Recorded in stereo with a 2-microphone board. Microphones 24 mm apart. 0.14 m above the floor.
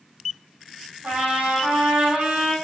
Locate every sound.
1.0 s a trumpet: 55° right (ahead or behind), 4.5 m